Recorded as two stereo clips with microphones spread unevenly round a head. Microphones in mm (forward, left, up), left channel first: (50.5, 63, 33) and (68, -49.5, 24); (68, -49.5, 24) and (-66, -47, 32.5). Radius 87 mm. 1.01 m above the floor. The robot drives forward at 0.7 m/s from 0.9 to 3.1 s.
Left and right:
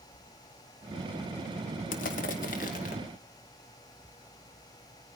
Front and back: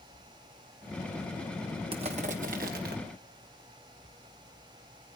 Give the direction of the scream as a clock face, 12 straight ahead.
I don't hear a scream.